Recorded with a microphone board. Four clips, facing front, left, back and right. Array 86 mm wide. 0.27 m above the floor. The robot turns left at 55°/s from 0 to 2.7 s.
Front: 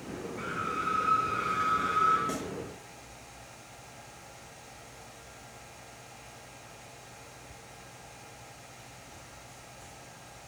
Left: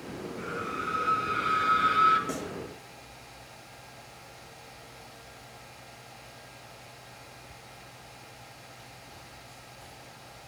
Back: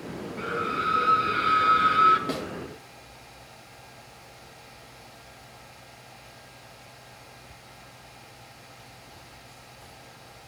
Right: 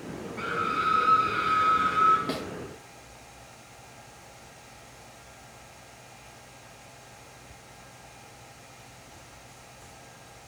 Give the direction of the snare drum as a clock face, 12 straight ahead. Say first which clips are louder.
Right 2 dB, back 4 dB; 4 o'clock.